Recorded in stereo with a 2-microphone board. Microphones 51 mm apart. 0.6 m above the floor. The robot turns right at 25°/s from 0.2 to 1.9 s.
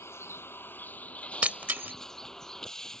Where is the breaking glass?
25° right (ahead or behind); by 1.9 s 40° right (ahead or behind).